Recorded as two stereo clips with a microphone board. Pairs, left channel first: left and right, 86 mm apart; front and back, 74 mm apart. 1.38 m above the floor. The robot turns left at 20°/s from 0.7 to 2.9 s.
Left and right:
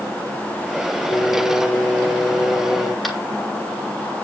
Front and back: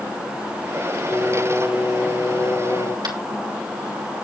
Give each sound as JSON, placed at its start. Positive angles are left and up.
{"t": 1.1, "sound": "singing", "azimuth_deg": 60, "distance_m": 5.0}
{"t": 3.0, "sound": "tapping", "azimuth_deg": 180, "distance_m": 3.0}